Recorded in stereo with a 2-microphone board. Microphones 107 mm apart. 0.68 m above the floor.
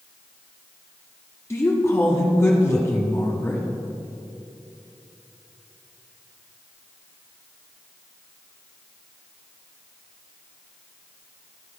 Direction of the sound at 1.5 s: 25° left (ahead or behind).